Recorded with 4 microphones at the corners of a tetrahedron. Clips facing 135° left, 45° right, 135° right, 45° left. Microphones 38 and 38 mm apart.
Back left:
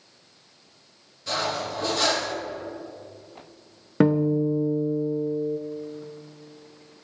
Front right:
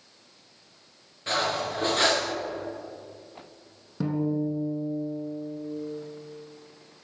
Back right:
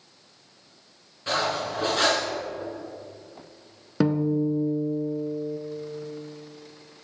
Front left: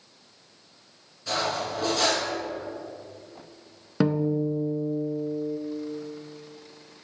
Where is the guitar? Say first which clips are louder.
Back left 7 dB, back right 1 dB; 130° left, 0.5 m.